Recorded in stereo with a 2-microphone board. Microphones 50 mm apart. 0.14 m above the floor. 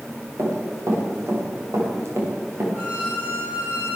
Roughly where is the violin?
Right.